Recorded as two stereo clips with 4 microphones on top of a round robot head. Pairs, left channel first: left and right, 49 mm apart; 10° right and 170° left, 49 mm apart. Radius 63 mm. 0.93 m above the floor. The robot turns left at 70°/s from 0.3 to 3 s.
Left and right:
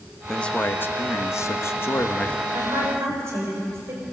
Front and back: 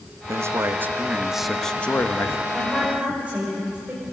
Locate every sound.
0.3 s a man speaking: 165° left, 1.3 m; by 2.4 s 20° left, 1.3 m
2.5 s a woman speaking: 85° right, 5 m; by 4.0 s 120° right, 5 m